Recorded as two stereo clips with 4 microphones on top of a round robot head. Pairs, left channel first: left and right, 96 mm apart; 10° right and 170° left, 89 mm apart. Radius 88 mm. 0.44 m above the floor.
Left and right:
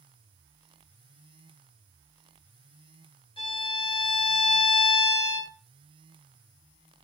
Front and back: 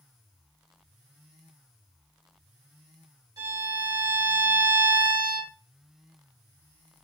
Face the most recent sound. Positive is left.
turn(degrees=120)